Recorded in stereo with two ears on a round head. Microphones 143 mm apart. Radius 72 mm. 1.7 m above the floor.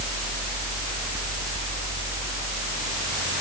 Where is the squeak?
I don't hear a squeak.